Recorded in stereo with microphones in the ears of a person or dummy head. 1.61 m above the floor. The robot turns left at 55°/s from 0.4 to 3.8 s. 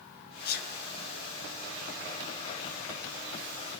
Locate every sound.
0.5 s a sneeze: 50° left (ahead or behind), 0.7 m; by 0.7 s 60° left (ahead or behind), 0.7 m